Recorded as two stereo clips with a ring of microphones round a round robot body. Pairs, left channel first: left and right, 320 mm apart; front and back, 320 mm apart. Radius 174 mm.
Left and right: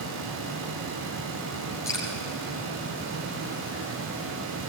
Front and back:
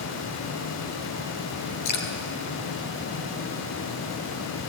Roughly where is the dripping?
Ahead.